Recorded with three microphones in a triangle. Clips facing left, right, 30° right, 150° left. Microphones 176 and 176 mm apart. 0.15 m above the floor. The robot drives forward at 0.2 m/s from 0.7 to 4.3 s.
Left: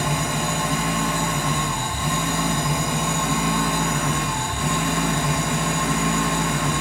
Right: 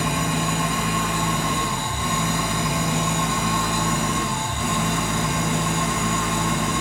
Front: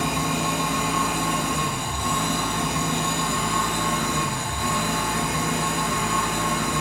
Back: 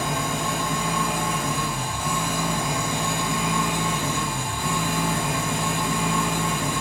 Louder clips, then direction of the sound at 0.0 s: Right 1 dB, front 2 dB; 55° left.